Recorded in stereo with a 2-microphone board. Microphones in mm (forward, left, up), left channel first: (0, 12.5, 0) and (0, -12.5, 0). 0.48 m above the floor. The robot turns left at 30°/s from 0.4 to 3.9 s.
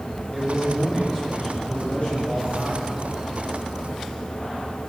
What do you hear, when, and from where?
0.3 s a man speaking: 170° left, 5.5 m; by 2.9 s 100° left, 5.5 m